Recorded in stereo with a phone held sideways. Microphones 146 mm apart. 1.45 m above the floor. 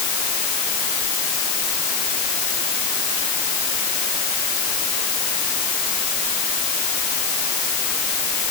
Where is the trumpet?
I don't hear a trumpet.